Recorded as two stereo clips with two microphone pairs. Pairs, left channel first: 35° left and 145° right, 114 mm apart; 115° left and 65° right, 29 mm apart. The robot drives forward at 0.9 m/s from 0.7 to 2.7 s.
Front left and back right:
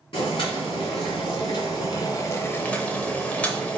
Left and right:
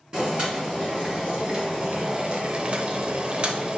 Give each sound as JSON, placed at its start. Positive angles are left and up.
{"t": 0.1, "sound": "boiling", "azimuth_deg": -5, "distance_m": 2.0}